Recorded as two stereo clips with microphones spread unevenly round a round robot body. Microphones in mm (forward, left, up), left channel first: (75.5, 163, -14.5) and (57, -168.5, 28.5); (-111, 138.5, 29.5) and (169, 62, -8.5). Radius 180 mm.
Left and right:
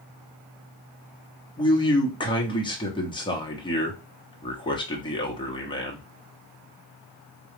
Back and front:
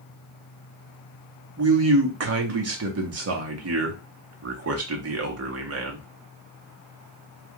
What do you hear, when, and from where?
1.6 s a man speaking: 15° left, 1.1 m